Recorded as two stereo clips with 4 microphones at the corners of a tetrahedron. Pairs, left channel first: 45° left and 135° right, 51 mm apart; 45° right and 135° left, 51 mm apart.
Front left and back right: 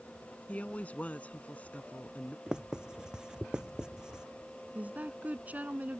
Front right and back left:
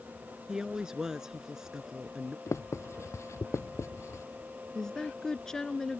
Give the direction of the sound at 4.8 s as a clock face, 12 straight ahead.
4 o'clock.